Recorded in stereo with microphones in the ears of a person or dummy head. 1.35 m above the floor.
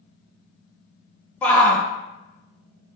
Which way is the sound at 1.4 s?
15° left (ahead or behind).